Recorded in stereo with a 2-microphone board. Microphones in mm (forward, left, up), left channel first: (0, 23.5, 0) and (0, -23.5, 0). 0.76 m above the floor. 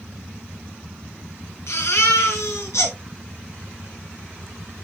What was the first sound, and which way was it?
A baby crying, 75° left (ahead or behind).